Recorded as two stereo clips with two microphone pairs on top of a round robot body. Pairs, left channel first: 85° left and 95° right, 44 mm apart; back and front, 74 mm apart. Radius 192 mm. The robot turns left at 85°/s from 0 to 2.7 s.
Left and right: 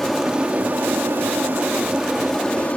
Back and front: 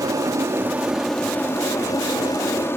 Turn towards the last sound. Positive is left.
turn(degrees=130)